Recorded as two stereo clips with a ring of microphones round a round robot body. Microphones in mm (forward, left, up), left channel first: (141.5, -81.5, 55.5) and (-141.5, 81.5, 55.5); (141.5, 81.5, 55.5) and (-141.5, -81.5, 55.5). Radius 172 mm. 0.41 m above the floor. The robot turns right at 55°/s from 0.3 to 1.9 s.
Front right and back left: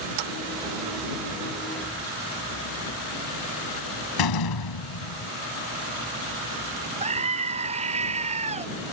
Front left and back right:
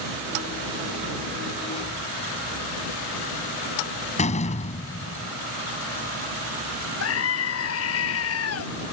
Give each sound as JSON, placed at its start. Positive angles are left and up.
{"t": 4.2, "sound": "a door slam", "azimuth_deg": -40}
{"t": 7.0, "sound": "a scream", "azimuth_deg": 80}